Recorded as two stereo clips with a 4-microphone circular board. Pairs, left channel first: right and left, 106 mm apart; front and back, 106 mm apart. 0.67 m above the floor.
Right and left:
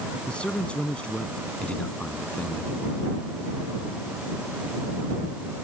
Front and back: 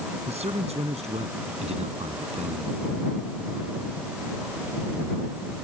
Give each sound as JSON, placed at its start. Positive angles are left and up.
{"t": 0.3, "sound": "a man speaking", "azimuth_deg": -170}